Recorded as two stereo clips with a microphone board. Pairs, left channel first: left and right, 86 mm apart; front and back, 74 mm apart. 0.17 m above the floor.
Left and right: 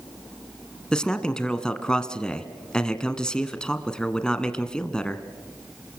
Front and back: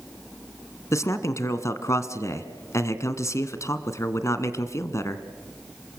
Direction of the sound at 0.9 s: 15° left.